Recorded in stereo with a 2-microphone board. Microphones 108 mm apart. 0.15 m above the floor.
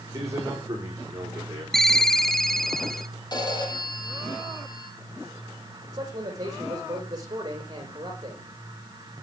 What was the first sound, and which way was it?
A man speaking, 30° right (ahead or behind).